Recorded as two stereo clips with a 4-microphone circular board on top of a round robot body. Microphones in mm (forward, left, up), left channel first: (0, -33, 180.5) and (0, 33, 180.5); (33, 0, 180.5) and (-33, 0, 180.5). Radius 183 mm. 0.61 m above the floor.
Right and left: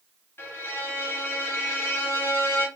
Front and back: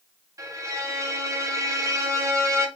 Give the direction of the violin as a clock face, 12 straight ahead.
5 o'clock.